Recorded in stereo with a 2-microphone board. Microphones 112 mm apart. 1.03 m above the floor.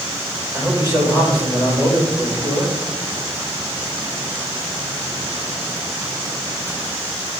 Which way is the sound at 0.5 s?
30° right (ahead or behind).